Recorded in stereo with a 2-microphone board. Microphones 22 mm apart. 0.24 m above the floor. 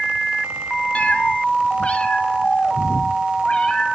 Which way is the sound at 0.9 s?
85° left.